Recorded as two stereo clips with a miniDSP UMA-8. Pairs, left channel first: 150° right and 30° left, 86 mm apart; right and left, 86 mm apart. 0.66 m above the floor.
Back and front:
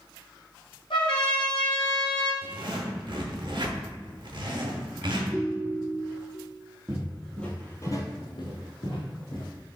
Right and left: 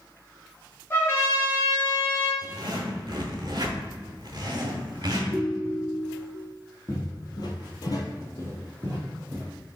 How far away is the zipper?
About 0.8 m.